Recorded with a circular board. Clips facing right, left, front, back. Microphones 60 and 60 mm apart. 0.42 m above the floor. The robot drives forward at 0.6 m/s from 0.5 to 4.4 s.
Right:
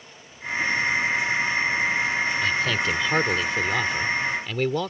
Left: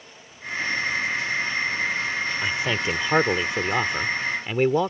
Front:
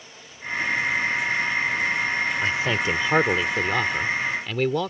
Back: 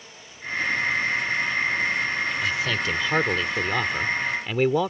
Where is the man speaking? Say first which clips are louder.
Right 1 dB, front 2 dB; 30° left; by 4.9 s 120° left.